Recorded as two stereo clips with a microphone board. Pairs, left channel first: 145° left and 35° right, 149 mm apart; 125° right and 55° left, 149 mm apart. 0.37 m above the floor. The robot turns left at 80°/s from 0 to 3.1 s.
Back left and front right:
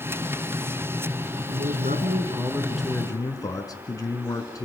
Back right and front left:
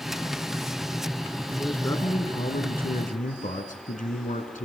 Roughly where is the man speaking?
Ahead.